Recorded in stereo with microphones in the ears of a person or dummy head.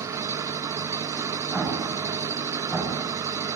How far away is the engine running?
About 1.0 m.